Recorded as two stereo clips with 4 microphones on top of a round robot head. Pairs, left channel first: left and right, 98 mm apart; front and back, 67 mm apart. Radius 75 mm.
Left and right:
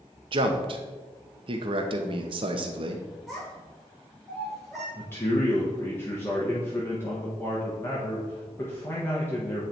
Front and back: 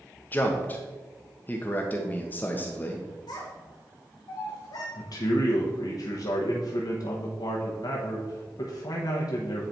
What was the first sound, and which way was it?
A man speaking, 65° right.